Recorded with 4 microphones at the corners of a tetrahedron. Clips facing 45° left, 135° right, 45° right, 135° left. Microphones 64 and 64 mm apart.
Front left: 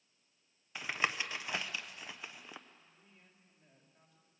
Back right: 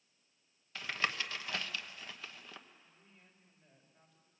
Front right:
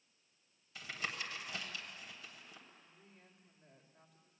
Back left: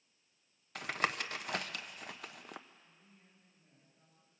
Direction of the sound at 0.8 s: 120° left.